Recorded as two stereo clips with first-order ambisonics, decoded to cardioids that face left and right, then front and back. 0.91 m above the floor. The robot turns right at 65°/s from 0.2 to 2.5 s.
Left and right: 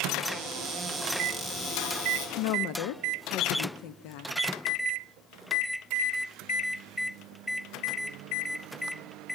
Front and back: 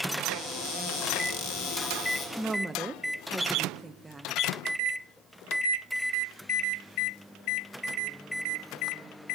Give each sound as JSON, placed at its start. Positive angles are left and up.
{"t": 0.2, "sound": "a cupboard door", "azimuth_deg": -70, "distance_m": 3.0}
{"t": 2.4, "sound": "a woman speaking", "azimuth_deg": 90, "distance_m": 0.6}